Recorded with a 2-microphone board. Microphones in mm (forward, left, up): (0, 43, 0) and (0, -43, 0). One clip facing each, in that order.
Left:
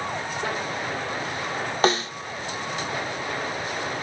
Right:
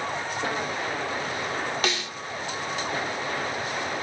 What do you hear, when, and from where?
1.8 s a snare drum: 35° left (ahead or behind), 0.8 m